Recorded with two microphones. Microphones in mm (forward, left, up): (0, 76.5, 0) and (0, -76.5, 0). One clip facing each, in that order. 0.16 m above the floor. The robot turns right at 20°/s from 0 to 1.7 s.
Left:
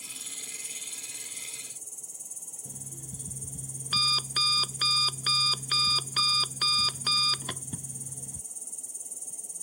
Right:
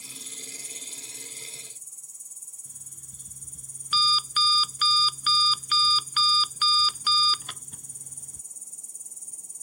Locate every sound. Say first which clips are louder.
0.0 s an insect: right 4 dB; 50° left; by 9.6 s 85° left
2.6 s an alarm clock: left 12 dB; 50° left (ahead or behind)